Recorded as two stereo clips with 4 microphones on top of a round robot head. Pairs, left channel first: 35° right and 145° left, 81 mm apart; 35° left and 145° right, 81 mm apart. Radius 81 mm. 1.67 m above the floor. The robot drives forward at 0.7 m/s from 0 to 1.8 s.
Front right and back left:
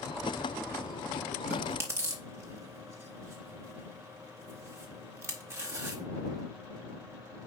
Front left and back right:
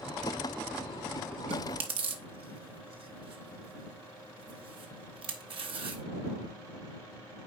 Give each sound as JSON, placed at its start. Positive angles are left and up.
{"t": 1.5, "sound": "chewing", "azimuth_deg": -150, "distance_m": 0.6}